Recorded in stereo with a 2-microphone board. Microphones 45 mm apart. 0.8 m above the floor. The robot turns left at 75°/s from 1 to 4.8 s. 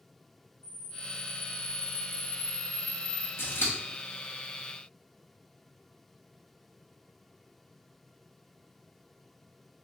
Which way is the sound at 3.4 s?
55° left (ahead or behind).